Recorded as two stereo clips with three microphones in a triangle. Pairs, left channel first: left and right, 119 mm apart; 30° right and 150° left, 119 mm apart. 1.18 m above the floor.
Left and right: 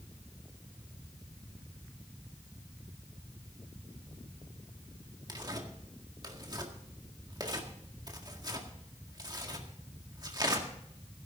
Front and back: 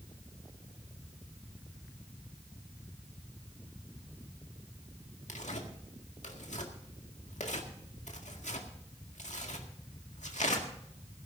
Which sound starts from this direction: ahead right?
Tearing paper, at 5.3 s.